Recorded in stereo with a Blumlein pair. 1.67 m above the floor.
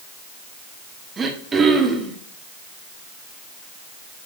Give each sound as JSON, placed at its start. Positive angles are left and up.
{"t": 1.2, "sound": "throat clearing", "azimuth_deg": -15, "distance_m": 1.5}